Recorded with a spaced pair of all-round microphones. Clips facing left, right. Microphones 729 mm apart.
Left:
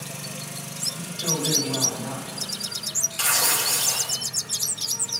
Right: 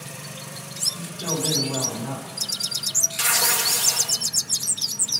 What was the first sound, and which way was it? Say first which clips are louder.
A woman speaking: right 1 dB; 70° right (ahead or behind).